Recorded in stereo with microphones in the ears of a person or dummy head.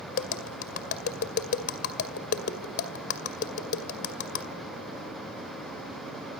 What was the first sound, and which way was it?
Tapping, 50° left (ahead or behind).